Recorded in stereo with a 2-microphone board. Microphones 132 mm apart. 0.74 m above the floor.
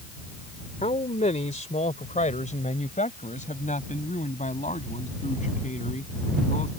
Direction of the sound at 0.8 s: 70° left (ahead or behind).